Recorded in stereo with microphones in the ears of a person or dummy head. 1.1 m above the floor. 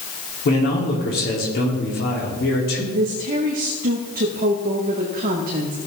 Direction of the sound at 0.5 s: 50° left (ahead or behind).